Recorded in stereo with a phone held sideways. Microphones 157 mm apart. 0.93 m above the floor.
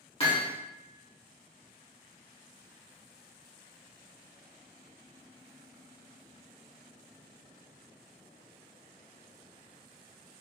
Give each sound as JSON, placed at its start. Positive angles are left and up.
{"t": 0.2, "sound": "hammering", "side_deg": 35, "distance_m": 1.6}